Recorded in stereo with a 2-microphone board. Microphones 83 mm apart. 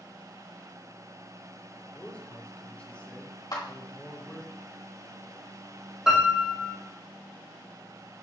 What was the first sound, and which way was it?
A man speaking, 15° left (ahead or behind).